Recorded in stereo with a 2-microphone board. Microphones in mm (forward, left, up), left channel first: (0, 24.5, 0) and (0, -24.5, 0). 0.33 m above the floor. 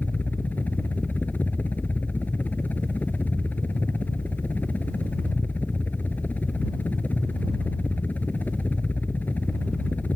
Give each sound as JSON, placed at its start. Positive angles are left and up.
{"t": 0.0, "sound": "a helicopter", "side_deg": 35}